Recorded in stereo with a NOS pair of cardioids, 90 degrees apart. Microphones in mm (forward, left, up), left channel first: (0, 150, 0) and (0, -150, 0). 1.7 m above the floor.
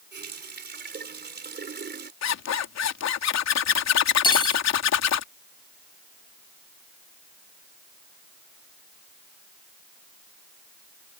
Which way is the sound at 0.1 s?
35° right.